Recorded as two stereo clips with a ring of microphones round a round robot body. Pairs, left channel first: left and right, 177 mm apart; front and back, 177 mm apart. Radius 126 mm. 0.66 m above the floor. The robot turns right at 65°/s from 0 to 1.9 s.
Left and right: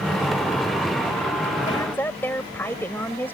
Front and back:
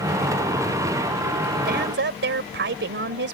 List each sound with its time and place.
1.7 s a woman speaking: 155° left; by 3.3 s 170° left